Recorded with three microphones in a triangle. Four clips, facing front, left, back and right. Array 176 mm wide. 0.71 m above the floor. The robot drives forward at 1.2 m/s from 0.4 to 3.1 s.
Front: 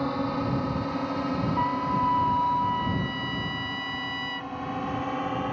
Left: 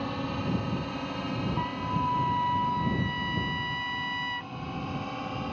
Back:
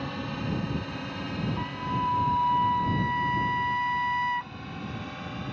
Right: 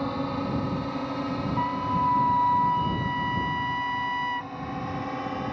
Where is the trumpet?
25° right; by 4.5 s 150° right.